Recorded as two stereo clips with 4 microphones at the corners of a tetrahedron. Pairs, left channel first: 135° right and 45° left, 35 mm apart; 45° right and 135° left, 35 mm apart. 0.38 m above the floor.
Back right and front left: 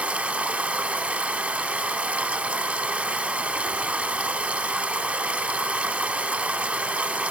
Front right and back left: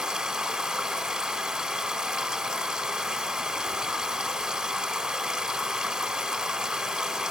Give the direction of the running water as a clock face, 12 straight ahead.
10 o'clock.